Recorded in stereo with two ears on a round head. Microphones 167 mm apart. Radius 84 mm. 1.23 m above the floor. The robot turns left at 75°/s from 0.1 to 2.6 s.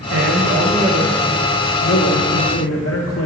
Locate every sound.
0.1 s a man speaking: 100° right, 1.1 m; by 3.3 s 70° left, 1.1 m